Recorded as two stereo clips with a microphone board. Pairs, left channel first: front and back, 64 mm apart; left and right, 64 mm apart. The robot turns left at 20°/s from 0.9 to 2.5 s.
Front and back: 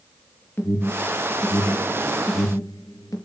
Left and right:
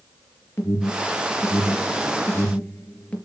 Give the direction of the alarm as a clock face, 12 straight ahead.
10 o'clock.